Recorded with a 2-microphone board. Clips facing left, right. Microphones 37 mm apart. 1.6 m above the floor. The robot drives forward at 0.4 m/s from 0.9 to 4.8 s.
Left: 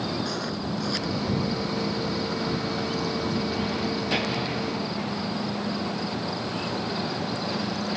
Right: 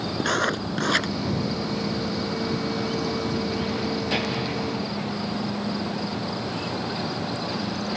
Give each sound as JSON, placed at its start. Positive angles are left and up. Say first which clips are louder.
{"t": 0.2, "sound": "writing", "louder": "right 6 dB", "side_deg": -70}